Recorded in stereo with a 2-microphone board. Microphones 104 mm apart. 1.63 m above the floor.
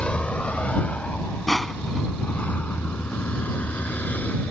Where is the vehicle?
10° left (ahead or behind); by 4.5 s 15° left (ahead or behind).